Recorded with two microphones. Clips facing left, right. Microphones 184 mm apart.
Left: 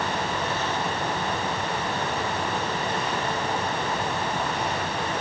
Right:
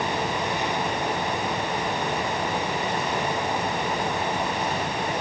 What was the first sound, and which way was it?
Only background noise.